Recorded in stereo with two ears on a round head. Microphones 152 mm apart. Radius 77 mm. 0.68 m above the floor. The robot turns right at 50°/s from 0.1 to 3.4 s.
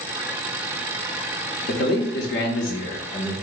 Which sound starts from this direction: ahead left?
A man speaking, at 1.7 s.